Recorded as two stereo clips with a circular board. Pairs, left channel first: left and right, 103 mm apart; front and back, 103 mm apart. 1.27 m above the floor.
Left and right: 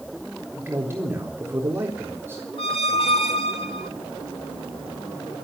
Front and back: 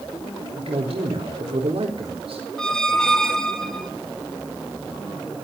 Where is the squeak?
85° left, 1.8 m.